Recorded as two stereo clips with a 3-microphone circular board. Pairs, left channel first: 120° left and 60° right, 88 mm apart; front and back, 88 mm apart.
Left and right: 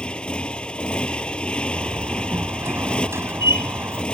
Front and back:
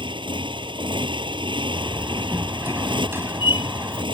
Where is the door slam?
120° right.